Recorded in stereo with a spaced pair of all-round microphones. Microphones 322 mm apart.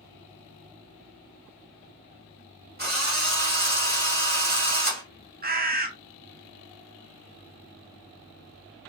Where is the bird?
30° right (ahead or behind), 0.6 m.